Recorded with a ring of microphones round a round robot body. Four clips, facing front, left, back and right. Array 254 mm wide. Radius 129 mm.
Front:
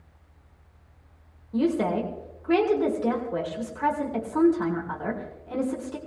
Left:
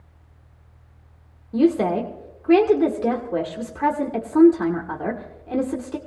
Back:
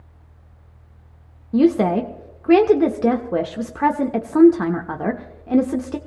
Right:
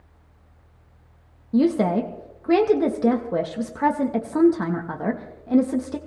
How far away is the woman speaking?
About 0.9 m.